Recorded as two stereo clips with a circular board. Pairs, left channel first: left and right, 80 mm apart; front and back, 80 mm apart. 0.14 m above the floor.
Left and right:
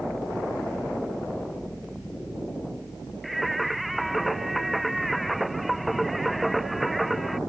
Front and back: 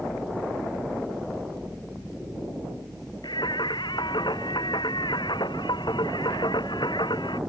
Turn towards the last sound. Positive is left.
turn(degrees=0)